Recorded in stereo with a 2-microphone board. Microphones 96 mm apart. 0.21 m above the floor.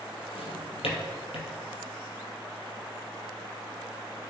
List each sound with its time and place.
0.3 s a drawer: 80° left, 2.5 m